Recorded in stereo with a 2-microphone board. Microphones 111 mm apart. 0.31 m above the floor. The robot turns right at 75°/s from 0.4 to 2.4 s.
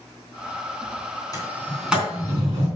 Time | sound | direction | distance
1.3 | a sliding door | 35° left (ahead or behind) | 3.5 m